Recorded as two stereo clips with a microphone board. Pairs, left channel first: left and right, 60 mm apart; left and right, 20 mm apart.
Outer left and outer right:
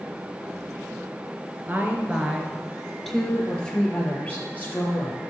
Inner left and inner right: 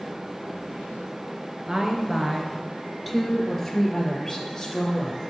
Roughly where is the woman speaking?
Right.